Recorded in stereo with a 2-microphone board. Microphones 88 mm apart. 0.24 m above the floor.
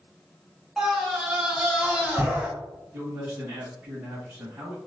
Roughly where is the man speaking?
Right.